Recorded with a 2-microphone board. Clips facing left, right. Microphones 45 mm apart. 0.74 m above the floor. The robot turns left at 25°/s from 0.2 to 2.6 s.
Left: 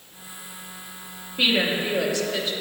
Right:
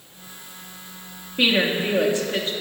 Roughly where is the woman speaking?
Centre.